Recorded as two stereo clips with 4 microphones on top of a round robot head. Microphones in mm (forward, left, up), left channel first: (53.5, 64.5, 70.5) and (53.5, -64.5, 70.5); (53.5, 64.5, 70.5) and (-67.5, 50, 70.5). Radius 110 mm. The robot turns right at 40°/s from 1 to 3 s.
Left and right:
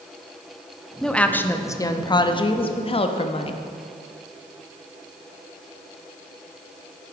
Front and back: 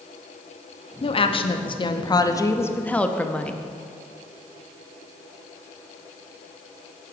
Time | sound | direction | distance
1.0 | a woman speaking | 5° left | 0.7 m